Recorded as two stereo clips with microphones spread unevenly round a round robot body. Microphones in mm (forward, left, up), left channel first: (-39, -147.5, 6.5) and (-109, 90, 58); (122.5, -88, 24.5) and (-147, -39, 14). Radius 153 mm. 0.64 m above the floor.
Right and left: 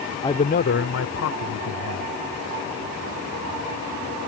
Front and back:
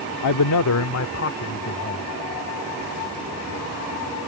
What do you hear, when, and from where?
0.2 s a man speaking: straight ahead; by 2.1 s 65° right